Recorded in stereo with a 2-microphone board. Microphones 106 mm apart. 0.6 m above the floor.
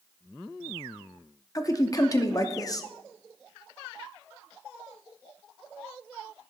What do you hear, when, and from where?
1.6 s a man speaking: 30° left (ahead or behind), 0.7 m